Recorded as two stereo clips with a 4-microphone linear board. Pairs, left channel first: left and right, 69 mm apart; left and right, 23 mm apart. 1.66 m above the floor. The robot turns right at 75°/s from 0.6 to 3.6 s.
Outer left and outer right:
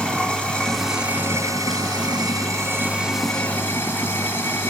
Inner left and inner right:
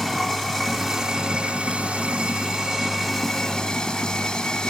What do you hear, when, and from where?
0.0 s running water: 165° left, 3 m; by 4.7 s 30° left, 3 m